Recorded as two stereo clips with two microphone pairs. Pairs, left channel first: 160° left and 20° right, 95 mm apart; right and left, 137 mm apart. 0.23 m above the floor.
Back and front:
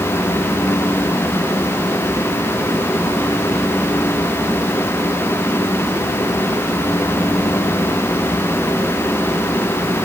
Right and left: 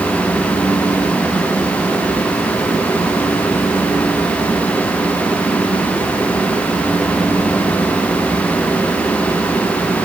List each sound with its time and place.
Only background noise.